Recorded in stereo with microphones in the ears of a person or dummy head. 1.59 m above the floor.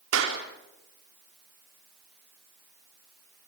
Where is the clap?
85° right, 4 m.